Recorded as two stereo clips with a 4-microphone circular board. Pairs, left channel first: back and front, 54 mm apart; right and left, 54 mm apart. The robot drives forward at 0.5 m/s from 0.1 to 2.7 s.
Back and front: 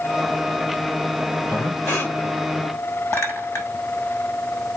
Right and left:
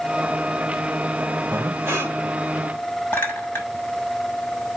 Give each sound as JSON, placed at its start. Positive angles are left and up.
{"t": 1.5, "sound": "breathing", "azimuth_deg": 135, "distance_m": 3.0}
{"t": 3.1, "sound": "a clink", "azimuth_deg": -150, "distance_m": 5.5}